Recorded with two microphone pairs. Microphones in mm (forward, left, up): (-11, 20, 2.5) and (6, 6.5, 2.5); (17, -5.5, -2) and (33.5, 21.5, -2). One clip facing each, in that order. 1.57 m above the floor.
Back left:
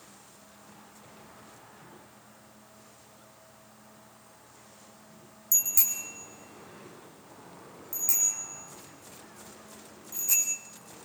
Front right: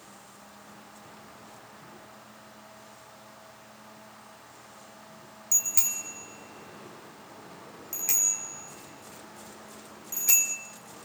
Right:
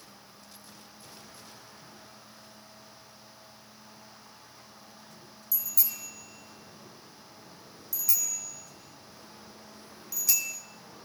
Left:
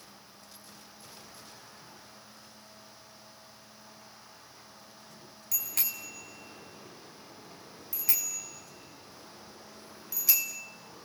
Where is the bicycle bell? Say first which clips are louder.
Front right 1 dB, left 2 dB; 30° left, 3 m; by 10.5 s 15° right, 3.5 m.